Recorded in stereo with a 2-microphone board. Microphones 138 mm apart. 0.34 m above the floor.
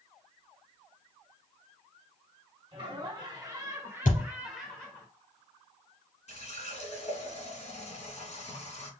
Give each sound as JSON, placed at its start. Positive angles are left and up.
{"t": 2.7, "sound": "laughter", "side_deg": -40, "distance_m": 1.8}
{"t": 4.0, "sound": "a thud", "side_deg": 80, "distance_m": 2.5}
{"t": 6.3, "sound": "a running tap", "side_deg": 55, "distance_m": 2.0}